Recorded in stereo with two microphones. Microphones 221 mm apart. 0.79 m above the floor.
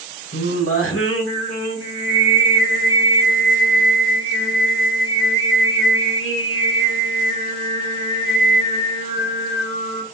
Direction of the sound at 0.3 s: 90° left.